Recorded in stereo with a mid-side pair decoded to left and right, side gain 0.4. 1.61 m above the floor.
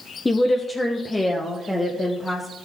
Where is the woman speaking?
25° left, 1.0 m; by 2.5 s 15° left, 2 m.